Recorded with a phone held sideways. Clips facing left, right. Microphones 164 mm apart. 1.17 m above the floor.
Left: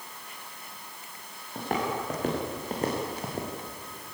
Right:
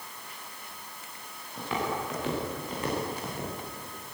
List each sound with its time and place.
1.6 s footsteps: 55° left (ahead or behind), 7 m; by 3.5 s 40° left (ahead or behind), 4.5 m